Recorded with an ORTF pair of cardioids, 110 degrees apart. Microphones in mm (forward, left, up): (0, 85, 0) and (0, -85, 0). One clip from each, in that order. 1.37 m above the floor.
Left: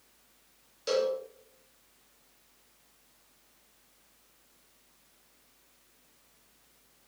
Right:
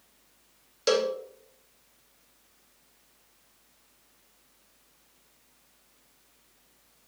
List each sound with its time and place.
0.9 s a cowbell: 45° right, 0.5 m